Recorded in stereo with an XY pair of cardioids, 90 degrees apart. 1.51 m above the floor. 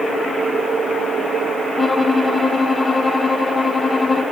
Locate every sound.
1.8 s a violin: 25° left, 1.8 m